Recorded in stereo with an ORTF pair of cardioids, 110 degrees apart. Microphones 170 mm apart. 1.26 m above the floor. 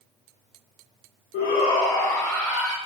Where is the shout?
70° left, 0.7 m; by 2.8 s 15° right, 1.5 m.